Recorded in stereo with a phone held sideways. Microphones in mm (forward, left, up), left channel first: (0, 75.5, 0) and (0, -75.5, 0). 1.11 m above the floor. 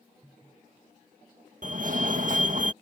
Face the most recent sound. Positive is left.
turn(degrees=-60)  # may be behind; listen again after turning